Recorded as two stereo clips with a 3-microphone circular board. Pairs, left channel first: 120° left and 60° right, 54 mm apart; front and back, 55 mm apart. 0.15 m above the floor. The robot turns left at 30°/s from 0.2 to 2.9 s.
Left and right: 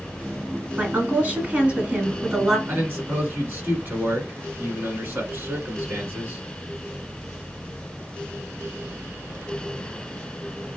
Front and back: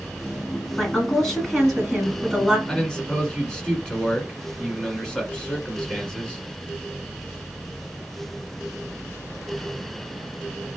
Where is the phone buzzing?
I don't hear a phone buzzing.